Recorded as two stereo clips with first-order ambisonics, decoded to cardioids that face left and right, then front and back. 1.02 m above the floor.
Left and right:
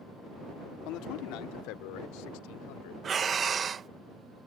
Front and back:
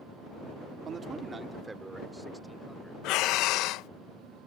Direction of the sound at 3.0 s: 25° right.